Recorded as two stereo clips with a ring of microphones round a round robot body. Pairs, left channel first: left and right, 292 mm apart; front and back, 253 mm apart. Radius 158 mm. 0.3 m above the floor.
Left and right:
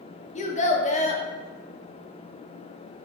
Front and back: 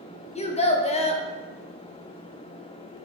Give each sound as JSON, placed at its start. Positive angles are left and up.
{"t": 0.3, "sound": "a child speaking", "azimuth_deg": 45, "distance_m": 0.5}